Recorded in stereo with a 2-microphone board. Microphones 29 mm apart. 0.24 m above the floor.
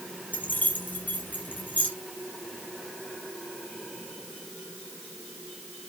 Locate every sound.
0.3 s keys jangling: 75° left (ahead or behind), 4.5 m; by 1.9 s 80° left, 4.5 m